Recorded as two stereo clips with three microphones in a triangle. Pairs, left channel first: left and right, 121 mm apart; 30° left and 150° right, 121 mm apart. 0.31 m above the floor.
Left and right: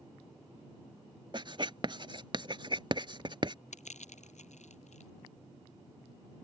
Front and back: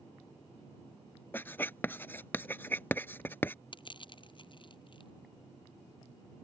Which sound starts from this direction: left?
Crushing, at 3.7 s.